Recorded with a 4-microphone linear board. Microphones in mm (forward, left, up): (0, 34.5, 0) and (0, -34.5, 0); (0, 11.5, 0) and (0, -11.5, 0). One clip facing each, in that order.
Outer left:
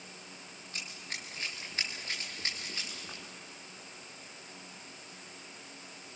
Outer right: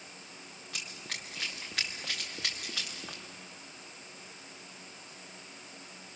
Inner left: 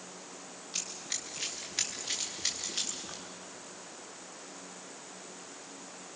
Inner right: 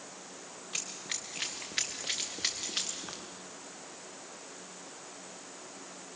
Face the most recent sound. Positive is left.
turn(degrees=-70)  # may be behind; listen again after turning